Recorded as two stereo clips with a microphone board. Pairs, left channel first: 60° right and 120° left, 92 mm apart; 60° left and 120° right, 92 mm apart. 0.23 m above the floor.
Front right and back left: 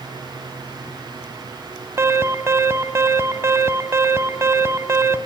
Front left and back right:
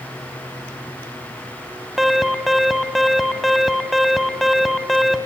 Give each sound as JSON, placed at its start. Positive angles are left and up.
{"t": 2.0, "sound": "an alarm", "azimuth_deg": 155, "distance_m": 1.4}